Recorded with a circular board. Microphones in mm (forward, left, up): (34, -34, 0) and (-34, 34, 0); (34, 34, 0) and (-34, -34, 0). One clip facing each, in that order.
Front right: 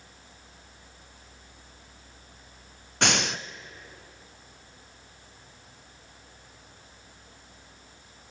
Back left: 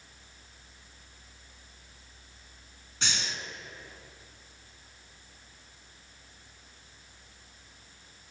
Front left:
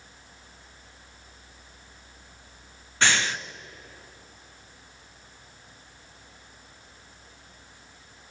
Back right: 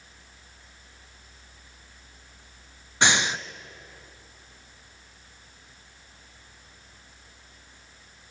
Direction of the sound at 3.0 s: 65° right.